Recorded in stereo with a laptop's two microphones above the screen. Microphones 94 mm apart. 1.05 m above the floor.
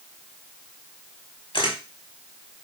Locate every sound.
1.5 s a camera shutter: 60° left (ahead or behind), 1.3 m